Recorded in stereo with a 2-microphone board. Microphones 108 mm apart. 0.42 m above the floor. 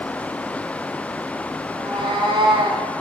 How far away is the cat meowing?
About 3 m.